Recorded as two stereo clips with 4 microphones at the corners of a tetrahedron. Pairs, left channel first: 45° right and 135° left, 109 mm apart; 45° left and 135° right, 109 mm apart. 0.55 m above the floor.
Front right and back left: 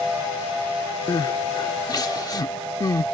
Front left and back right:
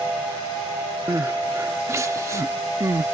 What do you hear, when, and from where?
1.1 s crying: 80° right